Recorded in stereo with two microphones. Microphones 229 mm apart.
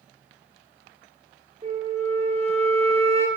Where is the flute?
25° right (ahead or behind), 0.9 m.